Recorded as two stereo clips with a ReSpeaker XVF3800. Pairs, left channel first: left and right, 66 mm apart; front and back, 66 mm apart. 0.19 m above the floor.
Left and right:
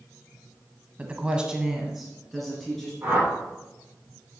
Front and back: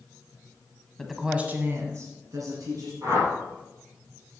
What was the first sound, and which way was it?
A woman speaking, 70° right.